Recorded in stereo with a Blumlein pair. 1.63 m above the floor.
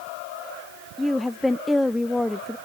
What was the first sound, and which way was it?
A woman speaking, 5° left.